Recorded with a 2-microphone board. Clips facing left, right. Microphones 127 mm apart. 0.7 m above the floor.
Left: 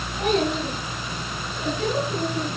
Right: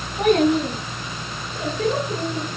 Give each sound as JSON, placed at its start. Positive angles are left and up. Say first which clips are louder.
{"t": 0.2, "sound": "a child speaking", "louder": "right 6 dB", "side_deg": -55, "distance_m": 6.0}